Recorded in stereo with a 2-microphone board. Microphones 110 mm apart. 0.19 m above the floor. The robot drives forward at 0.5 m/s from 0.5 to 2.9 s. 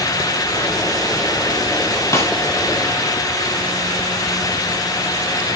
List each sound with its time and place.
2.1 s a snare drum: 25° left (ahead or behind), 1.6 m